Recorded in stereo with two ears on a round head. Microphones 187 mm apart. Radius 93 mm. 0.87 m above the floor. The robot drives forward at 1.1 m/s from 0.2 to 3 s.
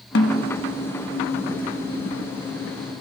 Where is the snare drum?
55° left (ahead or behind), 1.4 m.